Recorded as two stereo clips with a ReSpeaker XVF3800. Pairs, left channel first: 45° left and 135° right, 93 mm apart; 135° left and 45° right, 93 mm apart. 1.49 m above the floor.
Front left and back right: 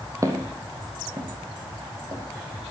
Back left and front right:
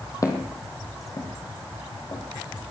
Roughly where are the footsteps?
Behind.